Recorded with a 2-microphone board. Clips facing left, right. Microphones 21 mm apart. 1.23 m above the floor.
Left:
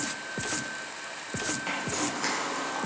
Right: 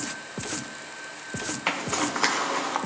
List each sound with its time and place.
1.7 s a zipper: 40° right (ahead or behind), 0.6 m